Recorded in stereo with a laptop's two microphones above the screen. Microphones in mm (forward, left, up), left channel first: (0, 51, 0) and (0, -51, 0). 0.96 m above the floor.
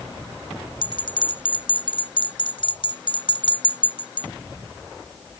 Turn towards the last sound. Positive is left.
turn(degrees=55)  # may be behind; listen again after turning